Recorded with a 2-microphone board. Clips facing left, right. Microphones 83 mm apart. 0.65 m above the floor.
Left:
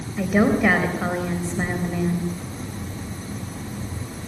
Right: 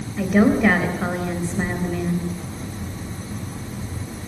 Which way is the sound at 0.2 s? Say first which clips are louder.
Right 2 dB; 5° left (ahead or behind).